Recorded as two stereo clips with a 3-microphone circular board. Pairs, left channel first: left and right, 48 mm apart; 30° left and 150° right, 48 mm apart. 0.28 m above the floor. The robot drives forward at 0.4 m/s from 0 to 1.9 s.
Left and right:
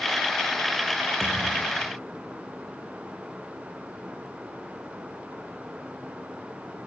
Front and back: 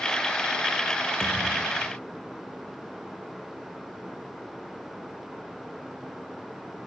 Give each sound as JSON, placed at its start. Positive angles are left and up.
{"t": 1.2, "sound": "a thud", "azimuth_deg": -115, "distance_m": 5.5}